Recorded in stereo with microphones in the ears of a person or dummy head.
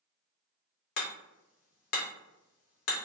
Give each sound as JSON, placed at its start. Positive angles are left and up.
{"t": 1.0, "sound": "hammering", "side_deg": 50, "distance_m": 0.7}